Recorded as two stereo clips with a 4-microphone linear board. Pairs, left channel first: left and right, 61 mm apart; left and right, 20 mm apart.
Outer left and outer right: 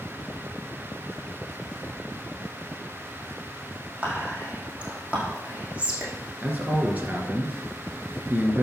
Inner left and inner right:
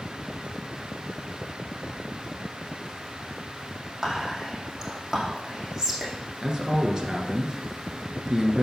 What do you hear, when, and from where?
4.0 s whispering: 20° right (ahead or behind), 4.5 m
6.4 s a man speaking: 30° right (ahead or behind), 1.9 m